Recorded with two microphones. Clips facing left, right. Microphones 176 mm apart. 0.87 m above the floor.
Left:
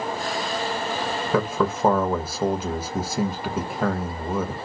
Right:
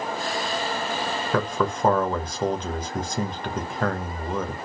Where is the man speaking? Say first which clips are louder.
Left 2 dB; 10° left (ahead or behind), 0.6 m.